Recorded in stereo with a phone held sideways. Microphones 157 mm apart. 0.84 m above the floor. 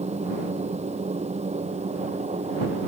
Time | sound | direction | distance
0.0 | a machine running | 50° right (ahead or behind) | ?